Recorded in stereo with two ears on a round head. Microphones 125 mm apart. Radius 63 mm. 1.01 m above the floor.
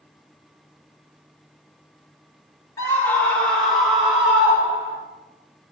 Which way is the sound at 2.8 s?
20° left (ahead or behind).